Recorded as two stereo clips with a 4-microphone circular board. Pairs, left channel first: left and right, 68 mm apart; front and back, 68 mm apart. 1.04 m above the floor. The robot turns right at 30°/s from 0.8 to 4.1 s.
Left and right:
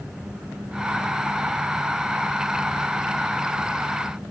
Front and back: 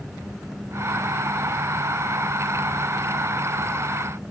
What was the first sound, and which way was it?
Only background noise.